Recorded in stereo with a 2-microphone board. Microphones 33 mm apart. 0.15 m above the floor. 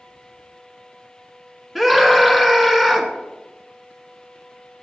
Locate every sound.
1.8 s a scream: 5° right (ahead or behind), 1.2 m